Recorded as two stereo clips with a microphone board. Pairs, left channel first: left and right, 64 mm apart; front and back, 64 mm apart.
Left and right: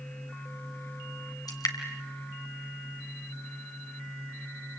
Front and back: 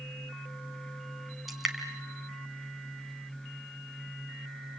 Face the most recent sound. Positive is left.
turn(degrees=90)